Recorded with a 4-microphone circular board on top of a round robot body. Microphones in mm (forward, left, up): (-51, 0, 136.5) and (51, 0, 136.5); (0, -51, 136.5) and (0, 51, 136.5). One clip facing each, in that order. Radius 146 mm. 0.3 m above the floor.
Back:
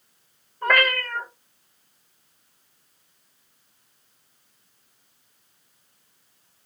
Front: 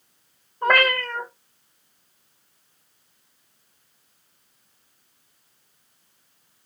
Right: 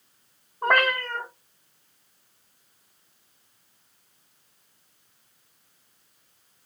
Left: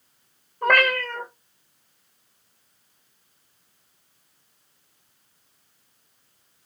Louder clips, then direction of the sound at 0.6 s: Front 2 dB, left 2 dB; 70° left.